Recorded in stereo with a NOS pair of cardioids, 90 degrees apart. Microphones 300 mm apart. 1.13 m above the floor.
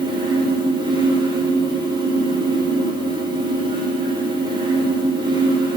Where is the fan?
15° right, 4 m.